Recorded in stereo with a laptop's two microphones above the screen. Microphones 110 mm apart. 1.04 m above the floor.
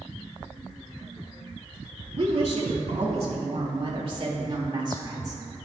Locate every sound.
2.2 s a woman speaking: 60° right (ahead or behind), 3 m; by 5.4 s 30° right (ahead or behind), 2 m